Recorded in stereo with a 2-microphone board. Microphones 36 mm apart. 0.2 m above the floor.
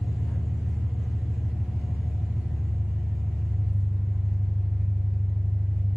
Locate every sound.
0.0 s an engine running: 65° right (ahead or behind), 1.3 m